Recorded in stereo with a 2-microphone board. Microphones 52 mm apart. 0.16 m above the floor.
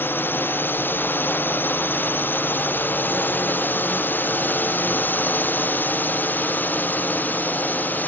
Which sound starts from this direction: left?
A drone, at 0.0 s.